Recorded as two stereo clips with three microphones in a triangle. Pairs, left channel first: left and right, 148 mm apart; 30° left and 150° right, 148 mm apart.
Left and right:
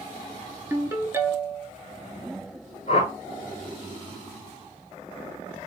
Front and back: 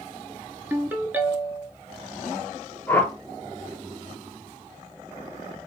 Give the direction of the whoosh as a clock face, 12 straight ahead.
9 o'clock.